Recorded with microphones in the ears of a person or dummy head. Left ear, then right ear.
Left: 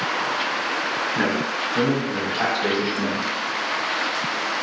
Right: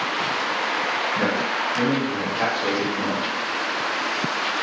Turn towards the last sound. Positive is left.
turn(degrees=25)  # may be behind; listen again after turning